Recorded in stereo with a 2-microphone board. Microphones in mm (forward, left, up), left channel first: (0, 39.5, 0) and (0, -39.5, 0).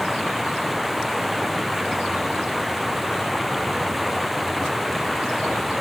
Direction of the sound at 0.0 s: Centre (ahead or behind).